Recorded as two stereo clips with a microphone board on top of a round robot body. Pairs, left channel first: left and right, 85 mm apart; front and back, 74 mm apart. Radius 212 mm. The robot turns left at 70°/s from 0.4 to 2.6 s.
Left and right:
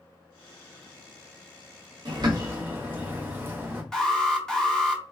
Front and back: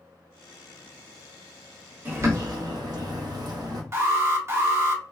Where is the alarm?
170° left, 1.5 m.